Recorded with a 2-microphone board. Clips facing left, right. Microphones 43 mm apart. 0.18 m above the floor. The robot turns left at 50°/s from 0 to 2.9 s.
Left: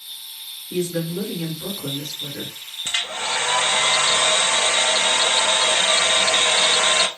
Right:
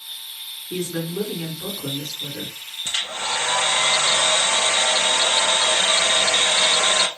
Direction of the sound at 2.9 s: 35° left (ahead or behind).